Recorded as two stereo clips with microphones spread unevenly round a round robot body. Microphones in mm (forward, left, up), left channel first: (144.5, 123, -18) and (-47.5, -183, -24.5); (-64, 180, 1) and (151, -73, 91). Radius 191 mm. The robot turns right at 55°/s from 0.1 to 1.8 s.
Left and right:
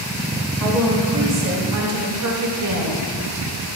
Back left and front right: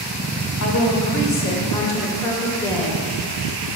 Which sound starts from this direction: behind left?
A woman speaking, at 0.6 s.